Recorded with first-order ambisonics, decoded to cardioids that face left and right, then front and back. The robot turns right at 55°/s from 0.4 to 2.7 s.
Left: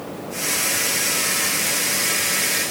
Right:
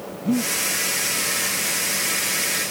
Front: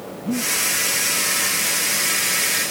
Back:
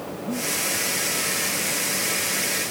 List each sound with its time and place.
0.2 s breathing: 70° right; by 0.5 s 60° right